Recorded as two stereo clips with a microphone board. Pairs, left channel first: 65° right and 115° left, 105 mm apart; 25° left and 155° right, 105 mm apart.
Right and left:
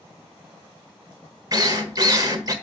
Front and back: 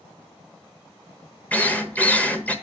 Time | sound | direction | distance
1.5 | a drill | 90° left | 1.3 m